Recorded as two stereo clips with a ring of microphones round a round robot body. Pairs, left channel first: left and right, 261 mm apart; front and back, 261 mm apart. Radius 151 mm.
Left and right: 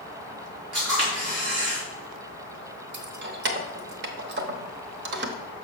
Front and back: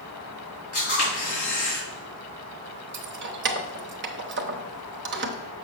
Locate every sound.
0.7 s a camera shutter: 60° right, 4.5 m
2.9 s keys jangling: 135° right, 0.9 m